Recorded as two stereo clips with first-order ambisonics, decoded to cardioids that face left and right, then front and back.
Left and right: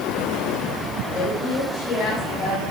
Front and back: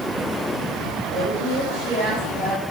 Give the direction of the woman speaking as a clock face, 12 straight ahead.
8 o'clock.